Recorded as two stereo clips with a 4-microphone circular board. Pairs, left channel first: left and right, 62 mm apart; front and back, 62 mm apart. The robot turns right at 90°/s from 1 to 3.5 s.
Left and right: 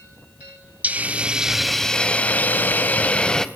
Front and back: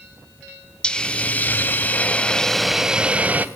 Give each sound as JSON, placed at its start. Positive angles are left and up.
{"t": 0.8, "sound": "a hiss", "azimuth_deg": -60, "distance_m": 0.6}